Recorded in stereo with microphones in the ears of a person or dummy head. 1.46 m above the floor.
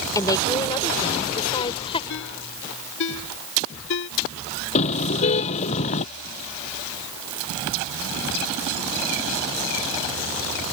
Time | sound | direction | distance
0.1 | a woman speaking | 20° left (ahead or behind) | ?
2.1 | a ringtone | 70° left (ahead or behind) | ?
4.8 | a car horn | 40° left (ahead or behind) | ?